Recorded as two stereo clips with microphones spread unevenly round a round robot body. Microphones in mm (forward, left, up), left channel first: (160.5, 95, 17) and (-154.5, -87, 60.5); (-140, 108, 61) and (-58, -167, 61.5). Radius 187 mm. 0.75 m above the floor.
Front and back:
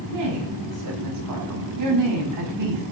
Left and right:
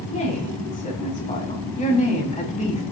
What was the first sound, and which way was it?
A woman speaking, 170° left.